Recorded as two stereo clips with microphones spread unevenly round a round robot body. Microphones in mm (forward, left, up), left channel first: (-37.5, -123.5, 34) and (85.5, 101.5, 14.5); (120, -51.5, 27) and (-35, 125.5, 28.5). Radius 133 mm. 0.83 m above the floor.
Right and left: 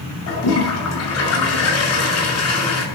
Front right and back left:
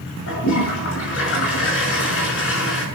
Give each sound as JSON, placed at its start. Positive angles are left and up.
{"t": 0.3, "sound": "a toilet flushing", "azimuth_deg": -95, "distance_m": 6.0}